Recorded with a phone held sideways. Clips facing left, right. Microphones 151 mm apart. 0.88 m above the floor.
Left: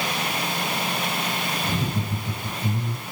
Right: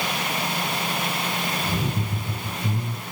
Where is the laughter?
15° left (ahead or behind), 4 m.